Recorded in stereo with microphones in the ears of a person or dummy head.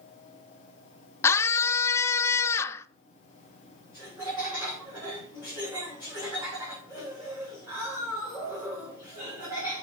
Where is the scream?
20° left (ahead or behind), 0.7 m.